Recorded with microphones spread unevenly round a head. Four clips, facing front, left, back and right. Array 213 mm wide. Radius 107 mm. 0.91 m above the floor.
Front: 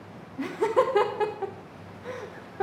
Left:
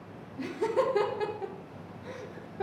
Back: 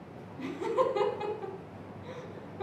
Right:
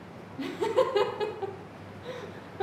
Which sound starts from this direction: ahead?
Laughter, at 0.4 s.